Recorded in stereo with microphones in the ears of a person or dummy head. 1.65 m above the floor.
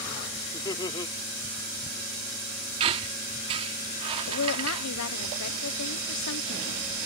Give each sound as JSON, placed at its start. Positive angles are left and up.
{"t": 0.5, "sound": "laughter", "side_deg": 20}
{"t": 2.8, "sound": "a squeak", "side_deg": -30}
{"t": 4.3, "sound": "a woman speaking", "side_deg": 85}